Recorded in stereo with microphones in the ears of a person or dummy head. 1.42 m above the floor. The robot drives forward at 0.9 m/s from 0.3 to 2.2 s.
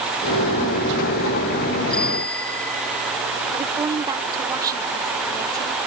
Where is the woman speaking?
15° right (ahead or behind).